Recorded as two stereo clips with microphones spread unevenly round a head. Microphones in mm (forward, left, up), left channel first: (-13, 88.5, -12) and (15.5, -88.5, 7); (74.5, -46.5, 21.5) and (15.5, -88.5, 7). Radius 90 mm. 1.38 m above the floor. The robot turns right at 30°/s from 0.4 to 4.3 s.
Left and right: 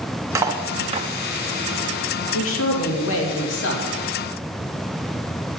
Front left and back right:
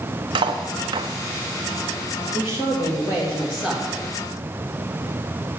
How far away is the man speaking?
About 2.5 m.